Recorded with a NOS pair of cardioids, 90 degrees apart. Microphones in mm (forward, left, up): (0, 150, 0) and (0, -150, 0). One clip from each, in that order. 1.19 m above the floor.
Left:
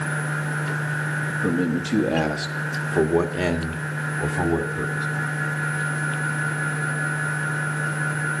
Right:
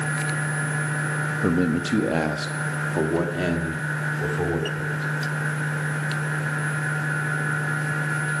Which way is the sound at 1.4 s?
20° right.